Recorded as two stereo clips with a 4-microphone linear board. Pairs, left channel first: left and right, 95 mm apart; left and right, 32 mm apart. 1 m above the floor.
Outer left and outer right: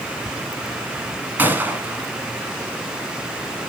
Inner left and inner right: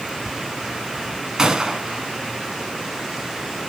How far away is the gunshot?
About 1.6 m.